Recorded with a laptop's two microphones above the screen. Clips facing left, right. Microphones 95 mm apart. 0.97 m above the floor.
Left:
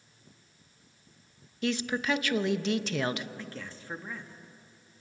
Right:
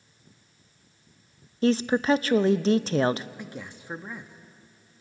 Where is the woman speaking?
35° right (ahead or behind), 0.6 m.